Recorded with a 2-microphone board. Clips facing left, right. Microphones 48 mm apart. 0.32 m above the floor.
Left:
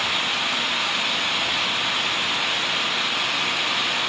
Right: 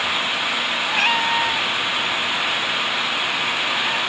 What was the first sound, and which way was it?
A cat meowing, 85° right.